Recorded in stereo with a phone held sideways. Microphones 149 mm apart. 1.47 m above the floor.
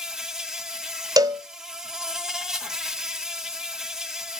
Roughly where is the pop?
No pop in this recording.